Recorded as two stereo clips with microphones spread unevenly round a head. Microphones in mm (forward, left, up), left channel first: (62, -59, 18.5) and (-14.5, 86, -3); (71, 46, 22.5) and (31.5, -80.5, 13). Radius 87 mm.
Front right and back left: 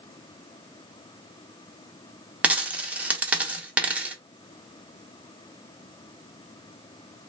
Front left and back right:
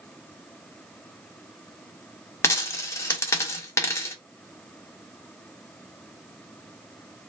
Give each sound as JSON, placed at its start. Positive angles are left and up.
{"t": 2.4, "sound": "a dropped coin", "azimuth_deg": 30, "distance_m": 0.6}